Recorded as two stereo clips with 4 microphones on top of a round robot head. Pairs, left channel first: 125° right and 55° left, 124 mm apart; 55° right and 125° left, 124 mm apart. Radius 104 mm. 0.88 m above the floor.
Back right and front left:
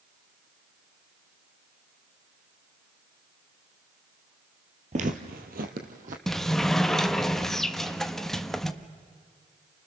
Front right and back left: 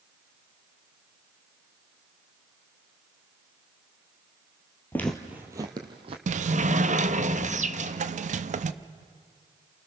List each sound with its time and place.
4.9 s footsteps: 20° left, 1.4 m; by 6.2 s 80° left, 2.5 m
6.3 s a sliding door: 145° left, 0.8 m